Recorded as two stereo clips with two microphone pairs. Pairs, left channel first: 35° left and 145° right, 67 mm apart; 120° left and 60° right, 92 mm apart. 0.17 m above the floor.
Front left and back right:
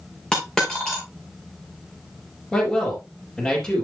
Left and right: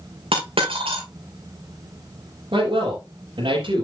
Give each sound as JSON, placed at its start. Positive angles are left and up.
{"t": 0.3, "sound": "a dropped coin", "azimuth_deg": -50, "distance_m": 3.5}
{"t": 2.5, "sound": "a man speaking", "azimuth_deg": -50, "distance_m": 4.0}